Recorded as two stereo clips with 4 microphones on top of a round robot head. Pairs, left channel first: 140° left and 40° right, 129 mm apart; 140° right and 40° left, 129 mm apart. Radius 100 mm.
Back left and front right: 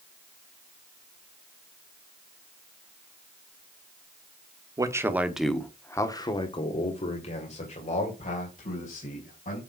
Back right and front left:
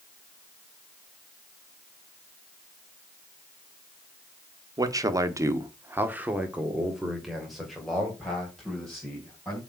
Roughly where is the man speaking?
Ahead.